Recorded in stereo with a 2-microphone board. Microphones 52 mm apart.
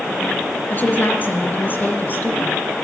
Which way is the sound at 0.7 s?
40° left (ahead or behind).